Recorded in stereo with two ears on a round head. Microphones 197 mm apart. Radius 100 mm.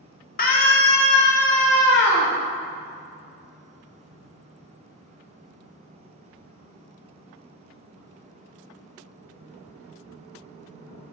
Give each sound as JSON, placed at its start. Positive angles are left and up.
{"t": 0.4, "sound": "a scream", "side_deg": 45, "distance_m": 1.7}